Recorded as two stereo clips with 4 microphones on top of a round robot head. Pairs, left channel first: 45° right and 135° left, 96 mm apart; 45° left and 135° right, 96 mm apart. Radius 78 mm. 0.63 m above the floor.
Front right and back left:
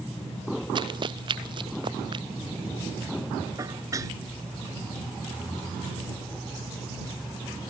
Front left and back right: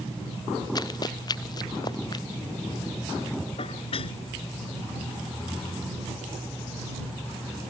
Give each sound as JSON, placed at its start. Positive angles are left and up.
{"t": 0.8, "sound": "running footsteps", "azimuth_deg": 95}
{"t": 3.6, "sound": "dishes clattering", "azimuth_deg": 80}